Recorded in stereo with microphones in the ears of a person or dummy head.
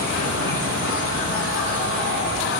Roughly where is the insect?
Left.